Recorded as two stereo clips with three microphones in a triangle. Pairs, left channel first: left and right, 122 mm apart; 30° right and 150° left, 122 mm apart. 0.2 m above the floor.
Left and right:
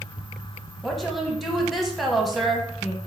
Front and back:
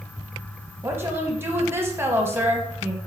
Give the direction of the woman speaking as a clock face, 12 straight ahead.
6 o'clock.